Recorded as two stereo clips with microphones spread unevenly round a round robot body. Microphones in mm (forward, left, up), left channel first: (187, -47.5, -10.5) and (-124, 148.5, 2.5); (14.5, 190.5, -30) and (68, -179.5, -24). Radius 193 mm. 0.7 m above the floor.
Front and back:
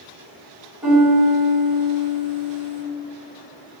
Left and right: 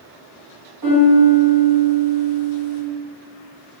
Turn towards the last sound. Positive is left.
turn(degrees=-120)